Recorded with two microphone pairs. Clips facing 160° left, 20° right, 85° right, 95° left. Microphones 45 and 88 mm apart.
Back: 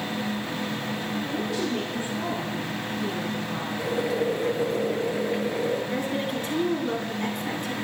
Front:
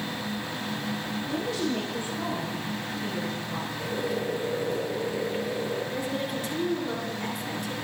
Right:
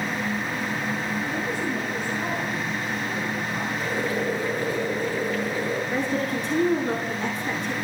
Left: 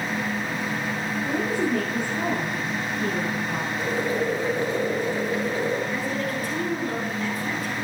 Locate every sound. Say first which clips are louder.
1.2 s a woman speaking: front 1 dB, left 3 dB; 95° left, 9 m
3.8 s boiling: back 5 dB, left 3 dB; 165° left, 7.5 m
5.9 s a woman speaking: back 3 dB, right 2 dB; 150° right, 9.5 m